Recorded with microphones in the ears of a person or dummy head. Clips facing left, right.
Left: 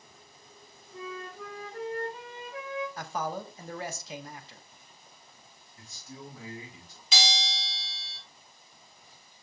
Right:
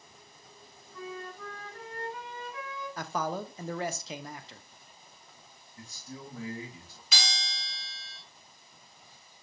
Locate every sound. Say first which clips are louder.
0.9 s a flute: left 1 dB; 25° left (ahead or behind), 1.5 m
3.0 s a man speaking: right 1 dB; 75° right (ahead or behind), 0.7 m
5.8 s a man speaking: right 1 dB; 35° right (ahead or behind), 3 m
7.1 s a bell: left 6 dB; 30° left (ahead or behind), 0.9 m